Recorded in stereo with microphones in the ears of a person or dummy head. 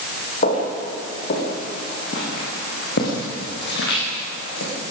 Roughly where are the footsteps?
Left.